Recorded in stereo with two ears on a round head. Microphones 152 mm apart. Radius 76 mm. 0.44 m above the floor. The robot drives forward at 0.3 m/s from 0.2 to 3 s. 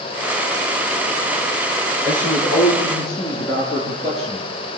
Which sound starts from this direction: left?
A man speaking, at 2.0 s.